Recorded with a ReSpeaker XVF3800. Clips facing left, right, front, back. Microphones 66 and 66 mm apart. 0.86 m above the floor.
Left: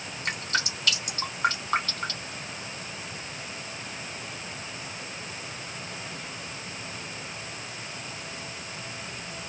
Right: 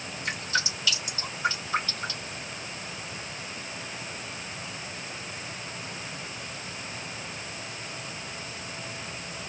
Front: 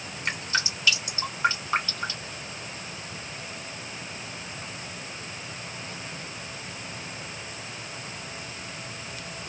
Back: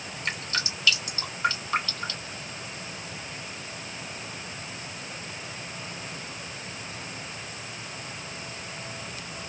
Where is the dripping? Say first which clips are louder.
Even, front 3 dB; 60° left, 1.8 m.